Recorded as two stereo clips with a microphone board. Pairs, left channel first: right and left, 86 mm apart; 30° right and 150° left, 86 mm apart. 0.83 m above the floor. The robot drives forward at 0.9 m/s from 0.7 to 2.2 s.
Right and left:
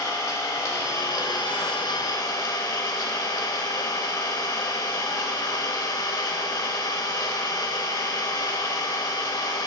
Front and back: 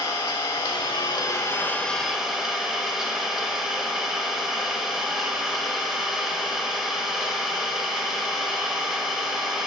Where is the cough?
No cough in this recording.